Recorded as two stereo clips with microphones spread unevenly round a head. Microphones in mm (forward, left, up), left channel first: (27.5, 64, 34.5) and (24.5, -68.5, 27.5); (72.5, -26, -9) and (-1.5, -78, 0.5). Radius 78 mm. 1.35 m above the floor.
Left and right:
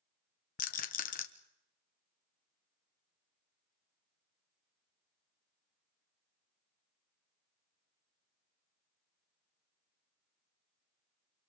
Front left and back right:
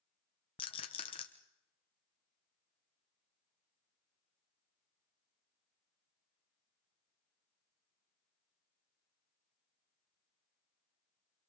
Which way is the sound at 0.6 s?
75° left.